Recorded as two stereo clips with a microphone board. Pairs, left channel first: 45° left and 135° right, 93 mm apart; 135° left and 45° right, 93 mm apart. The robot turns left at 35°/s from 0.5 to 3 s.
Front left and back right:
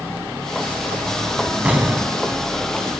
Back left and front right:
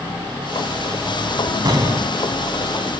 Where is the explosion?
65° right, 1.1 m; by 2.2 s 85° right, 1.1 m.